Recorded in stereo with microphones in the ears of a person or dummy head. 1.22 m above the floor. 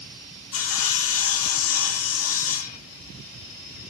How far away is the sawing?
About 0.5 m.